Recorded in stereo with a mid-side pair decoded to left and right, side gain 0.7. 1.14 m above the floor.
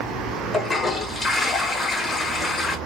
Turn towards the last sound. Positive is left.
turn(degrees=20)